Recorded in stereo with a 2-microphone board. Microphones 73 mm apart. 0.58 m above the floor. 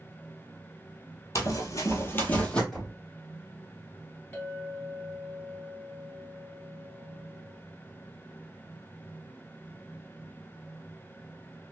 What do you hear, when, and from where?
1.4 s running footsteps: 45° left (ahead or behind), 0.9 m; by 2.6 s 10° left (ahead or behind), 1.1 m
2.7 s knocking: 5° left (ahead or behind), 1.8 m
4.3 s a clink: 25° left (ahead or behind), 1.5 m